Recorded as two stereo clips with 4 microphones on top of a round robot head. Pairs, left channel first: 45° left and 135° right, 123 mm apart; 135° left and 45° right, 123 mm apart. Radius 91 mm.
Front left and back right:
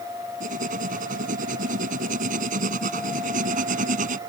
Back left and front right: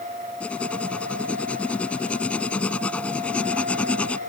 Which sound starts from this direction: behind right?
Writing, at 0.4 s.